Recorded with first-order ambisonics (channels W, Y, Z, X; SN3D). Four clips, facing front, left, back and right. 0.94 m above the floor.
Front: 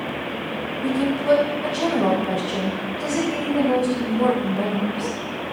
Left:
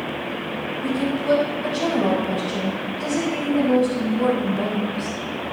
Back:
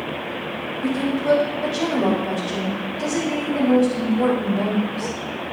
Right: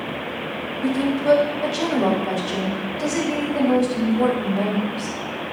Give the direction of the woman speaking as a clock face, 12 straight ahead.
4 o'clock.